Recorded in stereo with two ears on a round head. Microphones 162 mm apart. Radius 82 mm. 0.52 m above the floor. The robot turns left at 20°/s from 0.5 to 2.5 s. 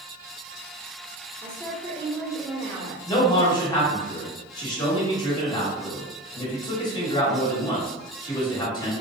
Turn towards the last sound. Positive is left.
turn(degrees=25)  # may be behind; listen again after turning